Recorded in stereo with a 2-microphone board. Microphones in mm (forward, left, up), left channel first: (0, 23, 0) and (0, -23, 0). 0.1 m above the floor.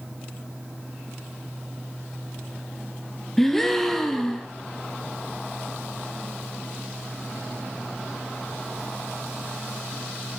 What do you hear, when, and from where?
3.4 s a gasp: 5° left (ahead or behind), 1.0 m